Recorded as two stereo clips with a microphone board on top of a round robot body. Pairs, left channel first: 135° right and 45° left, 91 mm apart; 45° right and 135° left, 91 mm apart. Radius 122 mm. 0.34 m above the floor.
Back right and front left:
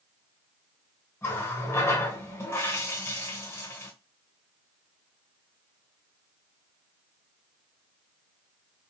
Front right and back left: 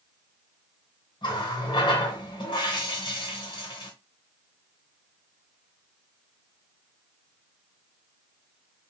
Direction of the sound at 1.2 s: 75° right.